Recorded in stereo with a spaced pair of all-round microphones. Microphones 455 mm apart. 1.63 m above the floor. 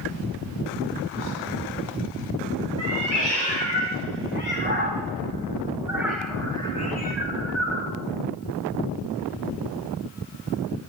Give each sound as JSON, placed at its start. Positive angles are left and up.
{"t": 2.8, "sound": "a cat meowing", "side_deg": -35, "distance_m": 3.5}